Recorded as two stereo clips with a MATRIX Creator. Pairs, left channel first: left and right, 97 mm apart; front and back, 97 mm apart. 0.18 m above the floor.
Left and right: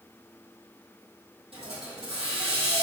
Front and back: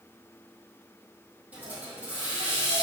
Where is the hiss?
105° right, 1.8 m.